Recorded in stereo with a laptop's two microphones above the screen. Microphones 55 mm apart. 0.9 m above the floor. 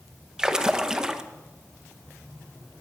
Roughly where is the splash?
Centre.